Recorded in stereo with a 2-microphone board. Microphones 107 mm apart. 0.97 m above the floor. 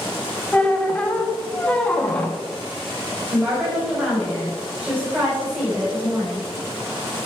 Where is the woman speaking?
20° right (ahead or behind), 4 m.